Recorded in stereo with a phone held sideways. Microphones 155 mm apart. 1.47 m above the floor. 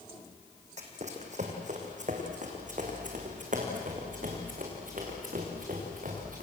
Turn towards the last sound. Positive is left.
turn(degrees=-60)  # may be behind; listen again after turning